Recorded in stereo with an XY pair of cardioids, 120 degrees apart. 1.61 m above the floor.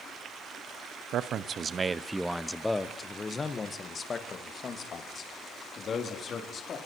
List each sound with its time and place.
1.1 s a man speaking: 60° right, 1.0 m; by 6.8 s 45° left, 4 m